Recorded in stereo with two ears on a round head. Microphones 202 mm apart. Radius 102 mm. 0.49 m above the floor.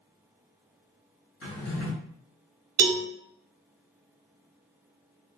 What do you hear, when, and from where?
1.4 s a drawer: 60° left (ahead or behind), 1.7 m
2.8 s a cowbell: 70° right (ahead or behind), 1.0 m